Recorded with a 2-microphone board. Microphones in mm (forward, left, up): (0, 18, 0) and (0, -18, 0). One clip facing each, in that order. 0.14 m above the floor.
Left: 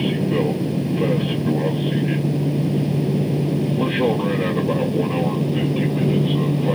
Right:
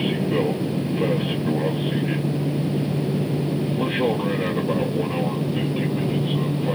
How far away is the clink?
I don't hear a clink.